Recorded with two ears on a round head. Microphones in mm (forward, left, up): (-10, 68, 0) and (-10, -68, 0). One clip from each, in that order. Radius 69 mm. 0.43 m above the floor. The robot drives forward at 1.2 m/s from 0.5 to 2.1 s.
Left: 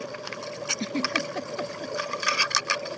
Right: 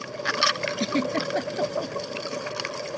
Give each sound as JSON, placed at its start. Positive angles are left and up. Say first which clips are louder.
{"t": 0.8, "sound": "a giggle", "louder": "right 2 dB", "side_deg": -15}